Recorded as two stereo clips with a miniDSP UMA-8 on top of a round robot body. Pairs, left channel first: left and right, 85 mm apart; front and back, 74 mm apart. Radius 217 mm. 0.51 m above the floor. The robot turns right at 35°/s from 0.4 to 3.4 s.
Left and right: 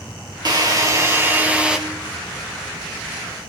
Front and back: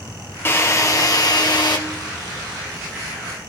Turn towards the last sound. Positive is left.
turn(degrees=50)